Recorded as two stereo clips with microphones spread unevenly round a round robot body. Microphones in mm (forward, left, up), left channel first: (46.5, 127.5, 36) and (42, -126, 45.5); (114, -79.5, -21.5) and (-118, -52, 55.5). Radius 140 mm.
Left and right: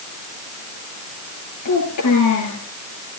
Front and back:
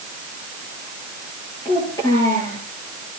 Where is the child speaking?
75° left, 7.5 m.